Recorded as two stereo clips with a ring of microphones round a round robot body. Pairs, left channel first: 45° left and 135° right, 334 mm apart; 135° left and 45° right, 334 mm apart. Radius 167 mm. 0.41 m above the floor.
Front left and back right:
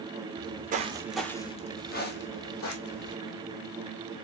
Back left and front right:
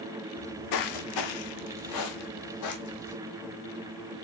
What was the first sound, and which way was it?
Footsteps, straight behind.